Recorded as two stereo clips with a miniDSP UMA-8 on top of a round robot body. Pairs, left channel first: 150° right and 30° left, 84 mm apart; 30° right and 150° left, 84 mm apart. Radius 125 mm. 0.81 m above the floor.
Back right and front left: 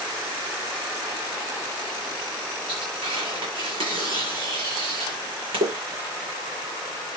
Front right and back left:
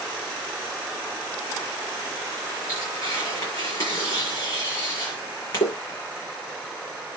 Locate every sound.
2.7 s tearing paper: 20° left, 8 m